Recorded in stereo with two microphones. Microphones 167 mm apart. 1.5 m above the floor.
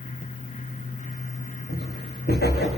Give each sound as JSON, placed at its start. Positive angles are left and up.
{"t": 1.7, "sound": "footsteps", "side_deg": 70, "distance_m": 5.0}